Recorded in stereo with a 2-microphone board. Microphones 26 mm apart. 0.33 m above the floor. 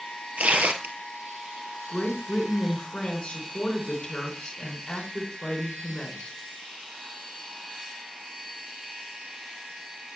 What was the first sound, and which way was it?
Tearing paper, 65° right (ahead or behind).